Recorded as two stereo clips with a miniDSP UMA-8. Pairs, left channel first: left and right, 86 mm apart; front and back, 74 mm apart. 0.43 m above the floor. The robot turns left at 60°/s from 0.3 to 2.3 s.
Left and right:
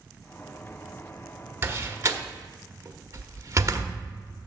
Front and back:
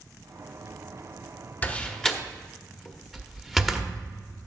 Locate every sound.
1.6 s a door slam: 50° right, 1.0 m; by 3.9 s 90° right, 1.0 m